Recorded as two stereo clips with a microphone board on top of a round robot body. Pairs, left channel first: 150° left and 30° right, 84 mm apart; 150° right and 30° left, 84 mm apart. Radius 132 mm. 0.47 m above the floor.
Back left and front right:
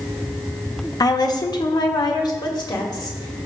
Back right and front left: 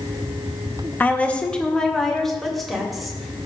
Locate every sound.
1.0 s a woman speaking: 150° left, 1.2 m; by 3.5 s 120° left, 3 m